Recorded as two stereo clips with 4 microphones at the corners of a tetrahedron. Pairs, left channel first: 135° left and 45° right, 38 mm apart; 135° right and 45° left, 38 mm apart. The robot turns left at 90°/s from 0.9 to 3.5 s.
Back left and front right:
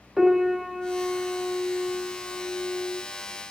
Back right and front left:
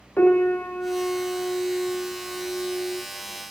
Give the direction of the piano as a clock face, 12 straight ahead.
4 o'clock.